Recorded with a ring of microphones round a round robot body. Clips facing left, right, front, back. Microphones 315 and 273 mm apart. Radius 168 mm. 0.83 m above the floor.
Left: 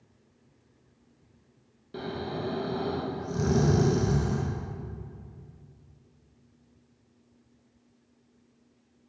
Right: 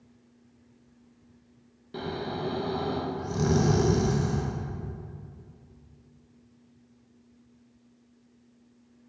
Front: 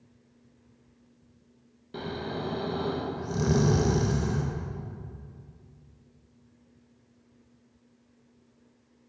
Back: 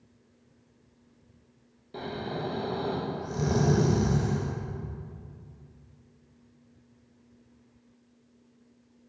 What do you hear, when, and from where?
1.9 s snoring: 15° right, 0.9 m